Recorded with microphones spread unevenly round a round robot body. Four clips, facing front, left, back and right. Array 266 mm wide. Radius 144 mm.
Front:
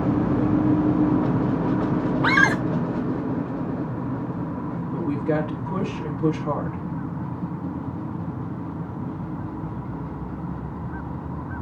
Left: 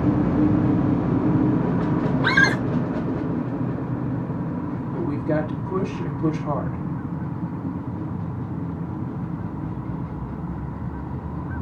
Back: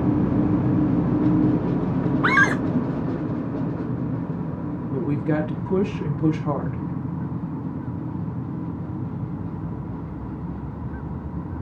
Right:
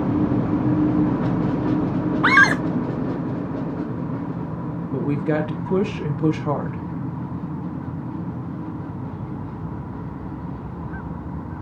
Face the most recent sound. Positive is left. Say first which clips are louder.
# right 2 dB, even
turn(degrees=-130)